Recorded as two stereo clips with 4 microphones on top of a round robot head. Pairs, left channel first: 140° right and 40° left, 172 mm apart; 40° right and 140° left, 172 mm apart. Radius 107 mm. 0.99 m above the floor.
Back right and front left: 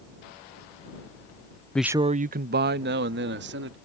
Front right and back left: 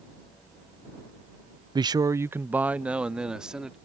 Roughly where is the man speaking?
Behind left.